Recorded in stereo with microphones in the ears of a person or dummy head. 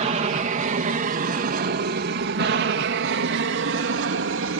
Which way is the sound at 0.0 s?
30° right (ahead or behind).